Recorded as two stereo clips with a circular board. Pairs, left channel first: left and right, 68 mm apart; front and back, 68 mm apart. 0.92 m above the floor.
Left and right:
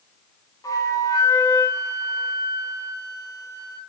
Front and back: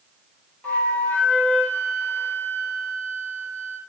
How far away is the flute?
About 5 m.